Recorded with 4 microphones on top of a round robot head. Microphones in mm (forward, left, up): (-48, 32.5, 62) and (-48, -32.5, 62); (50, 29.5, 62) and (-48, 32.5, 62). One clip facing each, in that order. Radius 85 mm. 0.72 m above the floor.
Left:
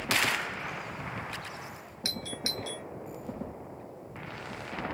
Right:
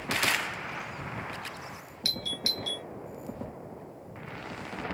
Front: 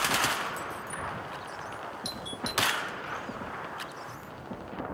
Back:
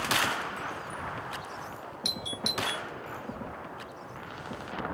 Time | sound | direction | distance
2.0 | a doorbell | 155° left | ?